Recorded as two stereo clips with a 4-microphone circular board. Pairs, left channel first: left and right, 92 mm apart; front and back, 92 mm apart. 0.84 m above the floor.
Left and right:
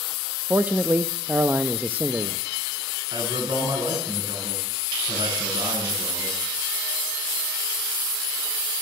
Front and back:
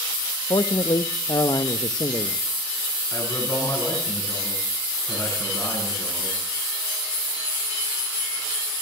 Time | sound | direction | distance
0.5 | a man speaking | 25° right | 0.7 m
3.1 | a man speaking | 55° right | 9 m